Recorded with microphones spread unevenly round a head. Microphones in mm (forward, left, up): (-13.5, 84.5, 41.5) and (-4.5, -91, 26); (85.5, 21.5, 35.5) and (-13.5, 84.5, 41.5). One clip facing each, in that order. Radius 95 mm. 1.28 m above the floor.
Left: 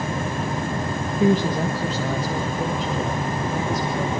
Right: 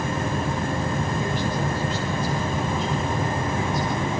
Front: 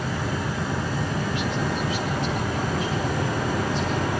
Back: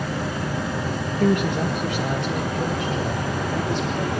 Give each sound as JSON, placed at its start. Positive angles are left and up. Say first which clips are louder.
{"t": 1.2, "sound": "a woman speaking", "louder": "left 6 dB, back 6 dB", "azimuth_deg": 100, "distance_m": 1.4}